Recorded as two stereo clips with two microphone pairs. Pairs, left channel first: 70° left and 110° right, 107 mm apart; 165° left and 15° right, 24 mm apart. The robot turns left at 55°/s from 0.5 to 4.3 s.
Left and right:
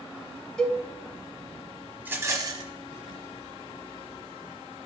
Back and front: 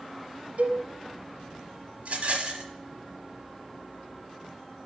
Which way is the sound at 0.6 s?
10° right.